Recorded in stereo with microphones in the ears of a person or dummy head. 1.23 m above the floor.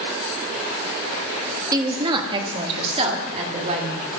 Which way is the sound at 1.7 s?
20° right (ahead or behind).